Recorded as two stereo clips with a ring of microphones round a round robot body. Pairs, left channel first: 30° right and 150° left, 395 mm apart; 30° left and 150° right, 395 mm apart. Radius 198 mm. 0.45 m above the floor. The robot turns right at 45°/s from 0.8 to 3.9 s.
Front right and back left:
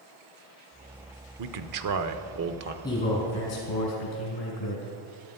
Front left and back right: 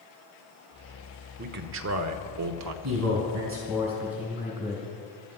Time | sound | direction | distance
1.4 | a man speaking | 150° left | 1.0 m
2.8 | a man speaking | 110° right | 4 m